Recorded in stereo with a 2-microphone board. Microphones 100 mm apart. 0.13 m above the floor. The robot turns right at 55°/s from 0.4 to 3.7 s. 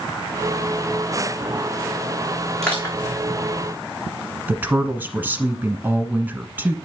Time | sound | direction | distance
2.6 | crushing | 5° left (ahead or behind) | 3 m
4.5 | a woman speaking | 20° right (ahead or behind) | 1.2 m